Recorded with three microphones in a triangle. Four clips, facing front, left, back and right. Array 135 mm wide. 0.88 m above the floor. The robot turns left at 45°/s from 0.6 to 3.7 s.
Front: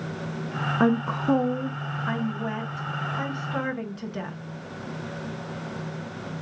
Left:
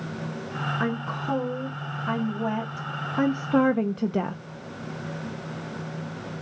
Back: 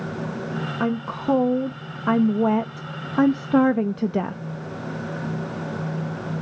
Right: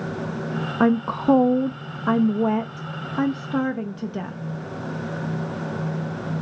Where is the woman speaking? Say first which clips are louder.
Right 13 dB, front 3 dB; 75° right, 0.6 m; by 4.4 s 150° left, 0.6 m.